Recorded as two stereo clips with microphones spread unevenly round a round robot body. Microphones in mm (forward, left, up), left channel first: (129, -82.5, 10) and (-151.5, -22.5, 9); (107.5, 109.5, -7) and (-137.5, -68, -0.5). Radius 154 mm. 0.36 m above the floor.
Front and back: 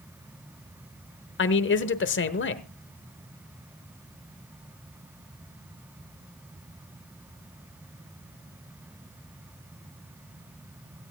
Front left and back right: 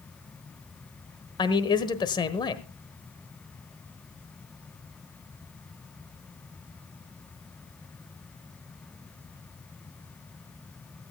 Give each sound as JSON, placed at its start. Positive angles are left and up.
{"t": 1.4, "sound": "a man speaking", "azimuth_deg": -35, "distance_m": 1.2}